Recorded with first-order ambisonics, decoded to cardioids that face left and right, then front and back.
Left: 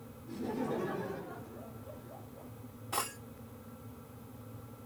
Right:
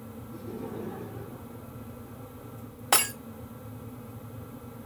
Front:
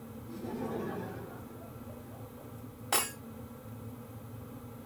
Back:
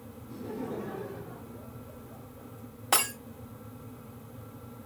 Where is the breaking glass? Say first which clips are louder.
Right 11 dB, back 5 dB; 110° right, 2.5 m.